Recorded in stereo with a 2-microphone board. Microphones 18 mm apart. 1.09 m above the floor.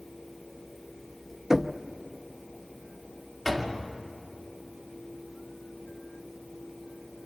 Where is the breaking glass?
No breaking glass in this recording.